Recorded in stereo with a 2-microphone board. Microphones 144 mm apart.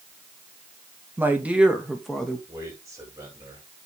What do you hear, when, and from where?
1.2 s a woman speaking: 15° right (ahead or behind), 2.5 m; by 2.4 s 5° left (ahead or behind), 2.5 m
2.5 s a man speaking: 25° right (ahead or behind), 8.5 m